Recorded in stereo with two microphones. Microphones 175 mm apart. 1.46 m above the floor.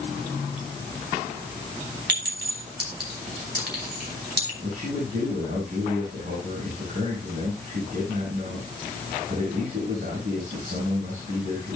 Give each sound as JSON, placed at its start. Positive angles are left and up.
{"t": 2.1, "sound": "a clink", "side_deg": -85, "distance_m": 4.0}
{"t": 4.6, "sound": "a man speaking", "side_deg": -70, "distance_m": 6.5}